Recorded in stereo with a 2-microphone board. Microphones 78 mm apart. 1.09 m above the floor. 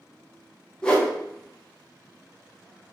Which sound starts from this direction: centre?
A whoosh, at 0.8 s.